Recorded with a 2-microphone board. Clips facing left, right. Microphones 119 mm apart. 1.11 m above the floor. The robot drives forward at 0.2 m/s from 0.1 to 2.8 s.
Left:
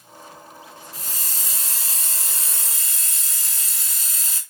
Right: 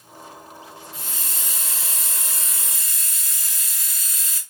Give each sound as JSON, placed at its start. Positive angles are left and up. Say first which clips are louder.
{"t": 0.9, "sound": "a hiss", "louder": "right 1 dB", "side_deg": 40, "distance_m": 1.6}